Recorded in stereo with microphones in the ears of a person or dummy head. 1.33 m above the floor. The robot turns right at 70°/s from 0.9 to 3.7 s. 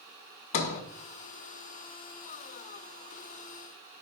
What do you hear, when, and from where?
0.5 s a sliding door: 40° left (ahead or behind), 1.1 m